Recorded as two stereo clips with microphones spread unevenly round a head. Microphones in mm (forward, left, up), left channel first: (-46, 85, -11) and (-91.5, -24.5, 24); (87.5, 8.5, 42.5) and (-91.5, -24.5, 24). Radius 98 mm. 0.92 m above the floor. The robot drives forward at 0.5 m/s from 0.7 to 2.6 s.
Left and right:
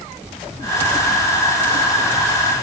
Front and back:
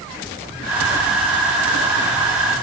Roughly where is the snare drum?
I don't hear a snare drum.